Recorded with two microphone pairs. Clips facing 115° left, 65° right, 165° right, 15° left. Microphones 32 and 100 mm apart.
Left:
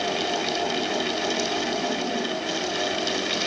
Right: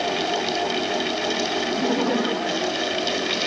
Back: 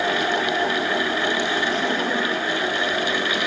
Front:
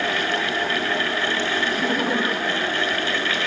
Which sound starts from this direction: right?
Laughter, at 1.7 s.